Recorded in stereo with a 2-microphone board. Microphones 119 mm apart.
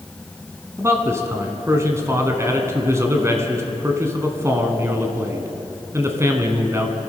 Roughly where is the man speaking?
Right.